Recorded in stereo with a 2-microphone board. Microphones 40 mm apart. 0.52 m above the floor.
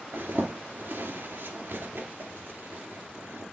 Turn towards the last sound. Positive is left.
turn(degrees=-75)  # may be behind; listen again after turning